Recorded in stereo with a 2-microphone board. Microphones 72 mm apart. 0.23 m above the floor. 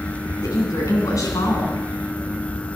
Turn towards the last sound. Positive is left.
turn(degrees=50)  # may be behind; listen again after turning